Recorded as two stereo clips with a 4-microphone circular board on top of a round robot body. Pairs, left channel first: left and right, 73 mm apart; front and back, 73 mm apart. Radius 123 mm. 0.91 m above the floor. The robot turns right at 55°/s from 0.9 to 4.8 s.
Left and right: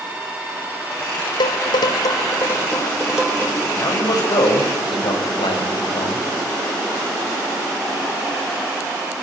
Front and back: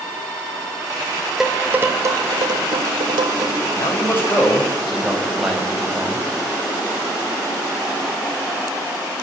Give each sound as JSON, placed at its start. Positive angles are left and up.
{"t": 1.4, "sound": "dishes clattering", "azimuth_deg": 95, "distance_m": 3.0}
{"t": 3.8, "sound": "a man speaking", "azimuth_deg": 35, "distance_m": 6.5}